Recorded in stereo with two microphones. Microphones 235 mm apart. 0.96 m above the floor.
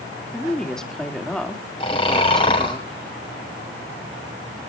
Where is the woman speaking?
Centre (ahead or behind), 2 m.